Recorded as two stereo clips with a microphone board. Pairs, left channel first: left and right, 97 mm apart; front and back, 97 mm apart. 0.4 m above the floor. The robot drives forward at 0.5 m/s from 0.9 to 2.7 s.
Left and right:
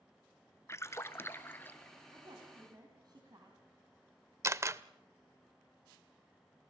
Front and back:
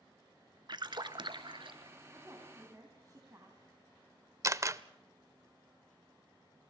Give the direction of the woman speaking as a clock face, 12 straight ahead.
4 o'clock.